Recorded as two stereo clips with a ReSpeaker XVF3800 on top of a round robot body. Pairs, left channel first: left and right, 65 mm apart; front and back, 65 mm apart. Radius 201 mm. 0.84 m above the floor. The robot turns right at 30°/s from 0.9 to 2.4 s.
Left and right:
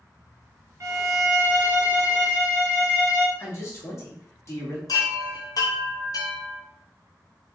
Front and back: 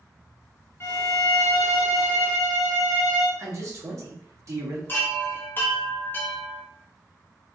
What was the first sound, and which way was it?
A violin, 50° right.